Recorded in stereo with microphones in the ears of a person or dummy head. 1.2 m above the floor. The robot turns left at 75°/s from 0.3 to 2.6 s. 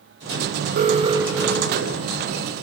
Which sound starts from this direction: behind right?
An alarm, at 0.8 s.